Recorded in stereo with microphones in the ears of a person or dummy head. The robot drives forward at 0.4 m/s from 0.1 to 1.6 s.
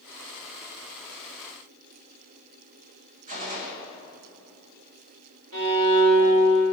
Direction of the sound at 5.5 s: 75° right (ahead or behind).